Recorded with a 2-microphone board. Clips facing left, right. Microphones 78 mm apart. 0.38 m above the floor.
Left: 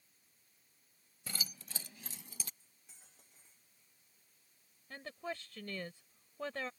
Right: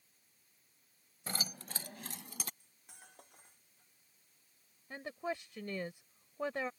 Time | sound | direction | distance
1.3 | keys jangling | 40° right (ahead or behind) | ?
2.6 | cutlery clinking | 60° right (ahead or behind) | ?
4.9 | a woman speaking | 15° right (ahead or behind) | ?